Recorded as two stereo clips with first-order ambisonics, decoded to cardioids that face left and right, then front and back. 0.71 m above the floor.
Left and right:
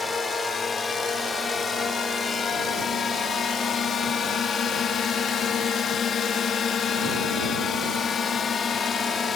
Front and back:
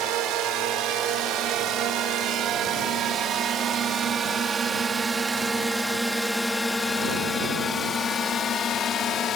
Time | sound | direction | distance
0.0 | a drone | 160° left | ?